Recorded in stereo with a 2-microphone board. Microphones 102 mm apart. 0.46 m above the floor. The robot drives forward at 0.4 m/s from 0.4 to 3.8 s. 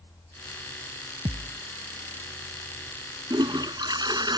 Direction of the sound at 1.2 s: 85° right.